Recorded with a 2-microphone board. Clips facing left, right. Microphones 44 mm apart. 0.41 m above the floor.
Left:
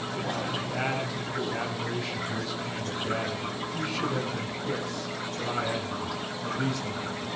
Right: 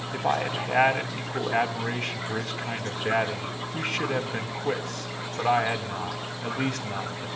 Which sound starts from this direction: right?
A man speaking, at 0.1 s.